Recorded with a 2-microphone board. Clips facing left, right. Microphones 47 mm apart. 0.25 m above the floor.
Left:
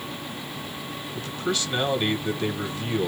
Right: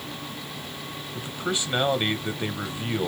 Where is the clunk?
I don't hear a clunk.